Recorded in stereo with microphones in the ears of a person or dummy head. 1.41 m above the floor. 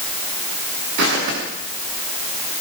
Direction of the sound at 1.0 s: 70° right (ahead or behind).